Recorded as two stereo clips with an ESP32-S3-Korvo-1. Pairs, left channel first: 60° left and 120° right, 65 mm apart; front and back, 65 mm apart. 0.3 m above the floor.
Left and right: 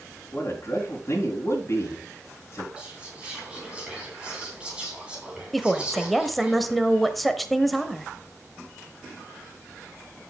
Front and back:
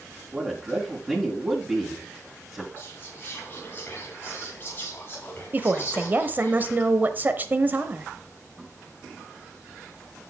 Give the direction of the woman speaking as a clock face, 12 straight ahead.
7 o'clock.